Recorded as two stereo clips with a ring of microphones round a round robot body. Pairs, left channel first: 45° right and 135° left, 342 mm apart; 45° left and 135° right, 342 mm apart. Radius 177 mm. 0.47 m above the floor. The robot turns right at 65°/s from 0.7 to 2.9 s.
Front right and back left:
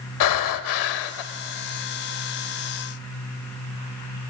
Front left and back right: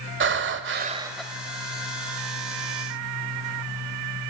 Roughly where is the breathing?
Right.